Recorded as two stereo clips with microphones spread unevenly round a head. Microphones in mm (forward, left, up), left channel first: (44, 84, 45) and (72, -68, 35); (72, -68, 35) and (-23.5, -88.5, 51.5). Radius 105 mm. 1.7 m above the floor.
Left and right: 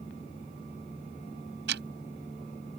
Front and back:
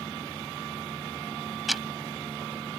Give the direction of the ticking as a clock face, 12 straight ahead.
3 o'clock.